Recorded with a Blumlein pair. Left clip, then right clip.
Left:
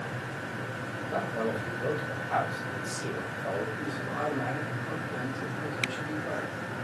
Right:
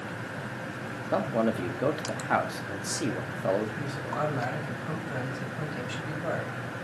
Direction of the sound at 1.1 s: 60° right.